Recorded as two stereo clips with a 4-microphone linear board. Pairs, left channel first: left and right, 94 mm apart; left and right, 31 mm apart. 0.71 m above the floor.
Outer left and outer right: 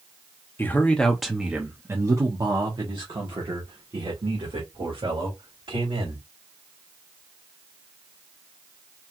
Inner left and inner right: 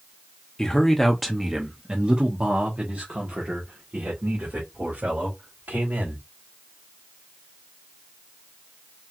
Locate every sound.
0.6 s a man speaking: 25° left (ahead or behind), 1.0 m; by 6.2 s 75° right (ahead or behind), 3 m